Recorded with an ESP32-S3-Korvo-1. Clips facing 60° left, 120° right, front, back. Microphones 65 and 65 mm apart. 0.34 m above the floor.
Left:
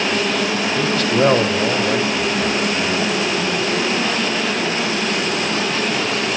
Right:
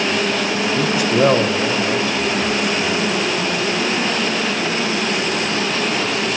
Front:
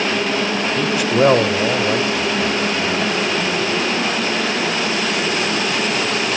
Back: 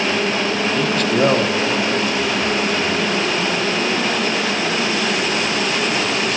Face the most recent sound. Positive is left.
turn(degrees=25)